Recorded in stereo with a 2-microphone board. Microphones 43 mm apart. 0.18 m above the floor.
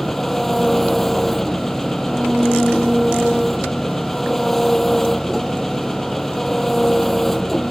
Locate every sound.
0.0 s an engine running: 5° left (ahead or behind)